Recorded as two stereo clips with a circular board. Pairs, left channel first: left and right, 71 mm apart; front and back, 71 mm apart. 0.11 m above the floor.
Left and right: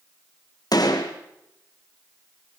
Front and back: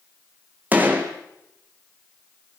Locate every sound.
0.7 s a gunshot: 115° left, 3.5 m